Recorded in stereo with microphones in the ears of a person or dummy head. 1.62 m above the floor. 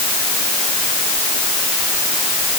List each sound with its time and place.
Only background noise.